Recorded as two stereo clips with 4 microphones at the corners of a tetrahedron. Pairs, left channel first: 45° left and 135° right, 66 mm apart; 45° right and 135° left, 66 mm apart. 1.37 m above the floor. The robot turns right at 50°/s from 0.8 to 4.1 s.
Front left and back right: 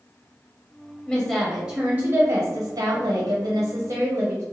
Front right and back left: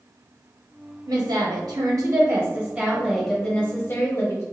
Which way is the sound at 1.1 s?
135° left.